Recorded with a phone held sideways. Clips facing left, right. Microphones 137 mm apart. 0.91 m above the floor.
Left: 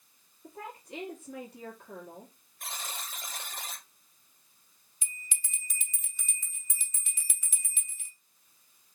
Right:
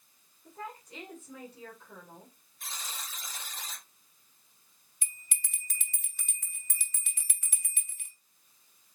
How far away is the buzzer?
About 1.3 m.